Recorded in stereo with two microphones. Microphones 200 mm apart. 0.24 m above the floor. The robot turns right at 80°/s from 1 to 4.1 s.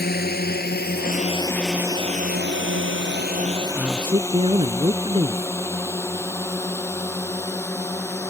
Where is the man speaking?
5° right (ahead or behind); by 5.5 s 30° right (ahead or behind).